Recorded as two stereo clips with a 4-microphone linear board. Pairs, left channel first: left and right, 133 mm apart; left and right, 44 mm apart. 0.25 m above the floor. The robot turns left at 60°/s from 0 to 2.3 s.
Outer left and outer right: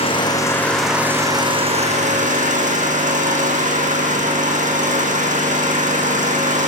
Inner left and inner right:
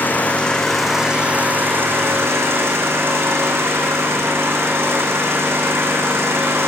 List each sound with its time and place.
0.0 s an engine running: 50° left, 5.5 m; by 6.7 s 90° right, 5.5 m